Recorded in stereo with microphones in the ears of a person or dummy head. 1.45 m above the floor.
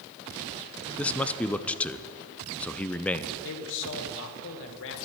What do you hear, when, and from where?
1.0 s a man speaking: 5° left (ahead or behind), 0.5 m
3.4 s a man speaking: 60° left (ahead or behind), 1.5 m